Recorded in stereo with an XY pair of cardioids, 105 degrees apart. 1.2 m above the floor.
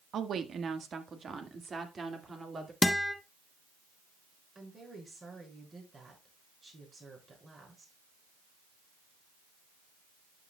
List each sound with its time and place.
0.1 s a woman speaking: 55° right, 1.3 m; by 2.7 s 30° right, 2.5 m
2.8 s a guitar: 20° left, 1.2 m
4.5 s a woman speaking: 30° right, 6 m